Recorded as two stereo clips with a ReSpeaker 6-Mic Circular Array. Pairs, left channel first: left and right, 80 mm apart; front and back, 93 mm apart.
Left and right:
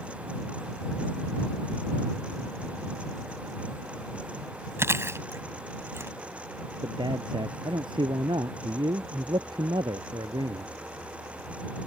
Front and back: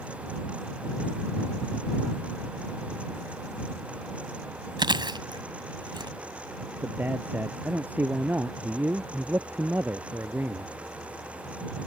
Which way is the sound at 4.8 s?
145° right.